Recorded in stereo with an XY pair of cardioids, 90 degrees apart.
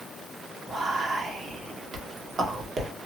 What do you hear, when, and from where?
0.7 s whispering: 55° right, 1.2 m